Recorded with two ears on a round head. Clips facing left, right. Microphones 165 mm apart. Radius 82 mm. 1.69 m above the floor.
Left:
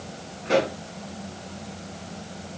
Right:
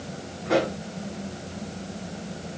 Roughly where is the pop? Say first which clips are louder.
Left 1 dB; left.